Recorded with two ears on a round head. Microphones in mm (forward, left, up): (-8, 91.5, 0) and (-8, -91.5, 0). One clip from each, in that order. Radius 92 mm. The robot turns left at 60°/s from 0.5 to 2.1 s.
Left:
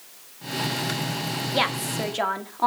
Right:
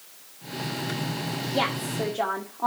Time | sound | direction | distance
1.5 | a woman speaking | 125° left | 1.6 m